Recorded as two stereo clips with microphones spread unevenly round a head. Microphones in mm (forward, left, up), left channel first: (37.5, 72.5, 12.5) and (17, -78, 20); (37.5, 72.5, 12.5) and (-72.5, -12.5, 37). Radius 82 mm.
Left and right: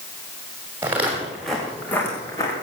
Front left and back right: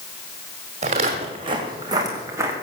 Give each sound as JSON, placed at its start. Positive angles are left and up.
{"t": 0.8, "sound": "footsteps", "azimuth_deg": -175, "distance_m": 3.5}